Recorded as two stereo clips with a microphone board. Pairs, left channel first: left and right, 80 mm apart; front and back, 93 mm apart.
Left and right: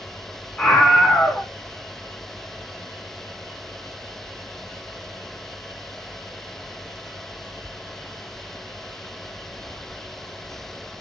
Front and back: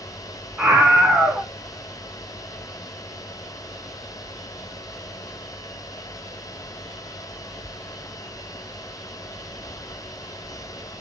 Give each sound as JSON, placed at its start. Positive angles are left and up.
{"t": 0.6, "sound": "a scream", "azimuth_deg": 135, "distance_m": 1.1}